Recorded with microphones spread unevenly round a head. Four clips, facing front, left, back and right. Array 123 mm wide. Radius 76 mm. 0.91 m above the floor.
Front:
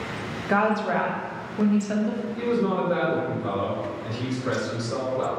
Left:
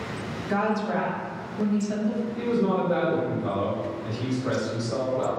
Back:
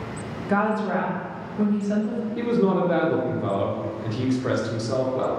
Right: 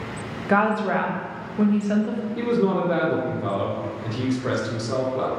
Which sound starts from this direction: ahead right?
A woman speaking, at 0.5 s.